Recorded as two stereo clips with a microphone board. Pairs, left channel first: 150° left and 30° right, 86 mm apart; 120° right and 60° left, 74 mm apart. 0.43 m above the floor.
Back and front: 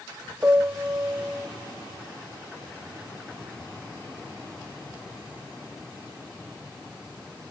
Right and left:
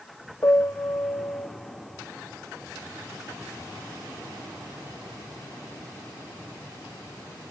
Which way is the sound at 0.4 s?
95° right.